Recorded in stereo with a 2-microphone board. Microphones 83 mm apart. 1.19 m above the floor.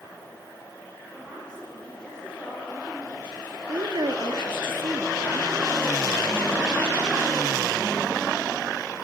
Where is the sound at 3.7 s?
75° right (ahead or behind), 1.9 m.